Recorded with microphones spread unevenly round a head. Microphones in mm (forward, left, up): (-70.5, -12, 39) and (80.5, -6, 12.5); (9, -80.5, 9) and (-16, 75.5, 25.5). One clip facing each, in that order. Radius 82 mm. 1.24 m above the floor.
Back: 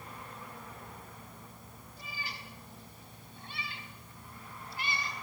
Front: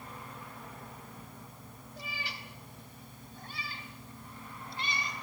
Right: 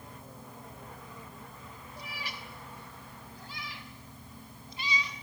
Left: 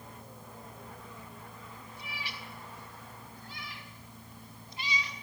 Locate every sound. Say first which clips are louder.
2.0 s a cat meowing: front 2 dB, right 2 dB; 25° right, 4 m; by 5.1 s 70° right, 6 m